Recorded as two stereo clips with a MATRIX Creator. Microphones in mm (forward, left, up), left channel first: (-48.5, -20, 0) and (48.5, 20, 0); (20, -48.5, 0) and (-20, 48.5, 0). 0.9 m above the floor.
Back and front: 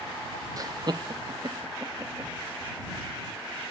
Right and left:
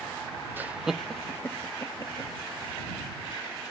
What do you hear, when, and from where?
0.6 s laughter: 55° left; by 2.3 s 25° right